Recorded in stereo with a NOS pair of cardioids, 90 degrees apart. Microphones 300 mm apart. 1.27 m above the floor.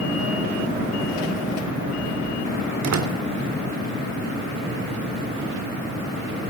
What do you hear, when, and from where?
2.8 s a door slam: 60° right, 3.5 m